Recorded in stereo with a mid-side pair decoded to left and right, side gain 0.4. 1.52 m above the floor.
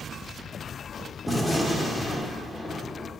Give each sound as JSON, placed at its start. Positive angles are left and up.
{"t": 1.3, "sound": "a gunshot", "azimuth_deg": 5, "distance_m": 2.5}